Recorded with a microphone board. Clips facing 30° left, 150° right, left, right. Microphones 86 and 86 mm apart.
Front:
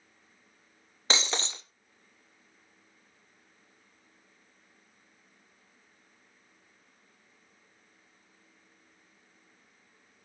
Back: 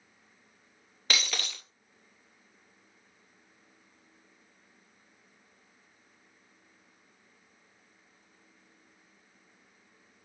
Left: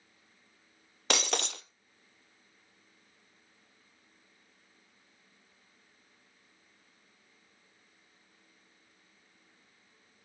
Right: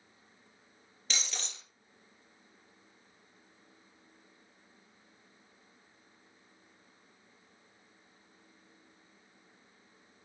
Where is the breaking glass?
90° left, 0.7 m.